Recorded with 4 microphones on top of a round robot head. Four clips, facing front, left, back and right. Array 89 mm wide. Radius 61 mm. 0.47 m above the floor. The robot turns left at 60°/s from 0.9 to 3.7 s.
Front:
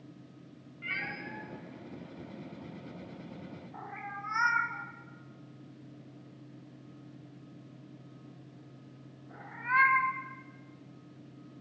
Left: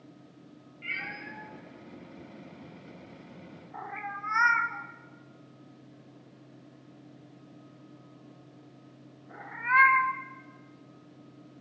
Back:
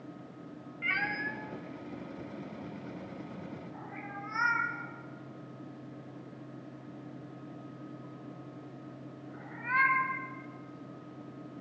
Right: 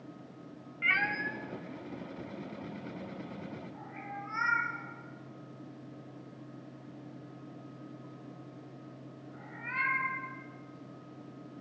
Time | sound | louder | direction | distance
0.8 | a cat meowing | right 8 dB, back 6 dB | 115° right | 0.8 m